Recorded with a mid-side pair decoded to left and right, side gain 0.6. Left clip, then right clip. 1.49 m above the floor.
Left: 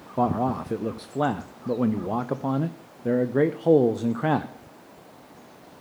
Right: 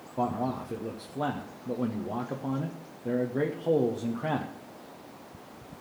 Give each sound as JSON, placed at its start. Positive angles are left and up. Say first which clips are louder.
{"t": 0.2, "sound": "a man speaking", "louder": "left 6 dB", "azimuth_deg": 40, "distance_m": 0.6}